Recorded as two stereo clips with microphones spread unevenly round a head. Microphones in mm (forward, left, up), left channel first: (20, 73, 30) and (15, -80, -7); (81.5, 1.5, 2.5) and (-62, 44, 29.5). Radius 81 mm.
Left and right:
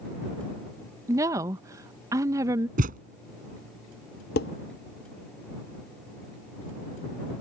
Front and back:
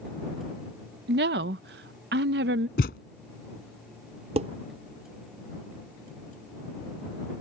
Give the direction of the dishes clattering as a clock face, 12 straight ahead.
8 o'clock.